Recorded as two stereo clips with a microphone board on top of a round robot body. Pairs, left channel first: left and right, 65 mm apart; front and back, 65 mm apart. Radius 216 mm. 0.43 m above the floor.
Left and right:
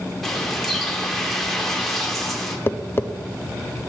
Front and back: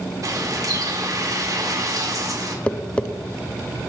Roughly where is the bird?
Behind.